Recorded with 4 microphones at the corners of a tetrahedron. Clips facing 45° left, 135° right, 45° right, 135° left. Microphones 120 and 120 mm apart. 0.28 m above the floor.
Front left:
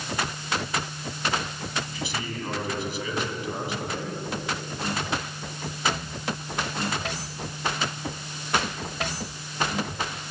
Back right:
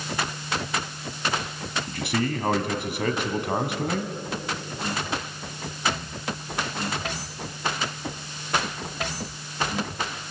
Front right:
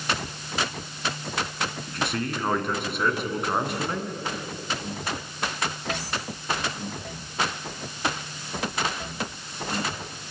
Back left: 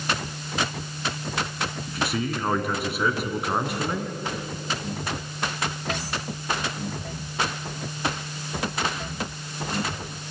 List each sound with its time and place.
1.9 s a man speaking: 140° right, 2.5 m